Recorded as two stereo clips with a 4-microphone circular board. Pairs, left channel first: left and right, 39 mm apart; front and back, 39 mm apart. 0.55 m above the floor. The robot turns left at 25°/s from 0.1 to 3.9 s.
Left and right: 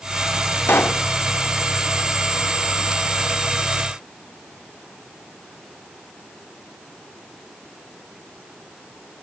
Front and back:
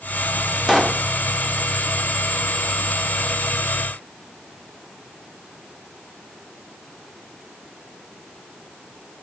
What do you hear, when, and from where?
0.7 s a pop: 95° left, 0.6 m; by 1.0 s 90° left, 0.6 m